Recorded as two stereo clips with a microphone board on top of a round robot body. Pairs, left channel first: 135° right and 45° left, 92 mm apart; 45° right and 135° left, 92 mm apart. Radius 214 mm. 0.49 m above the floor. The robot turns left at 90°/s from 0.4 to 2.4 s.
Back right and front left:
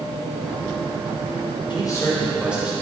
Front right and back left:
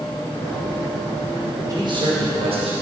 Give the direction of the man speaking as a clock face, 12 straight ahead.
6 o'clock.